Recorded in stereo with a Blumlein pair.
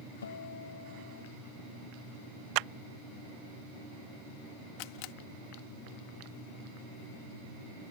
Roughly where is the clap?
Ahead right.